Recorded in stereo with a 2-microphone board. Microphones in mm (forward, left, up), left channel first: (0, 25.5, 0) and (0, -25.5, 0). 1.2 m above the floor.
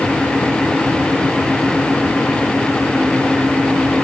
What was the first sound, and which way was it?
Only background noise.